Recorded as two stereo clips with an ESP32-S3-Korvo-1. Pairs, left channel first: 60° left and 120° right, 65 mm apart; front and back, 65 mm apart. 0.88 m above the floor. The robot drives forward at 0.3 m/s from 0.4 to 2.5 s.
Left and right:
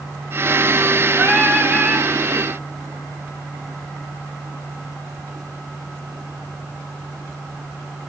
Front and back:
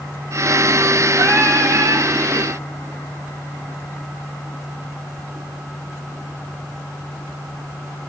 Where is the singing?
140° left, 1.9 m; by 2.1 s 145° left, 2 m.